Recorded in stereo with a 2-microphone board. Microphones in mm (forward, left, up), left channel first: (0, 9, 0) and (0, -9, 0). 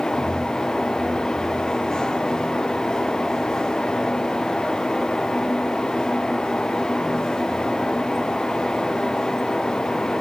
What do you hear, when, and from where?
Only background noise.